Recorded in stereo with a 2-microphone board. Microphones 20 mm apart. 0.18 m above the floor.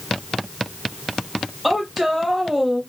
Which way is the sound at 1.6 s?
5° right (ahead or behind).